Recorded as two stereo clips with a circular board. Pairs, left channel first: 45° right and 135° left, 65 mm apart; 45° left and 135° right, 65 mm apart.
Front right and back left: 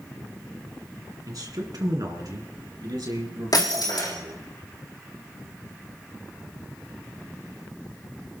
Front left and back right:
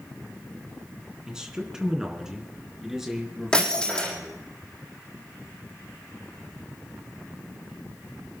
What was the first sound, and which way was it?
A man speaking, 145° left.